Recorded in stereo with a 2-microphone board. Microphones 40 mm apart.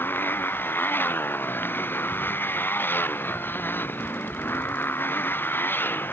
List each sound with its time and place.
0.0 s a motorcycle: 60° left (ahead or behind)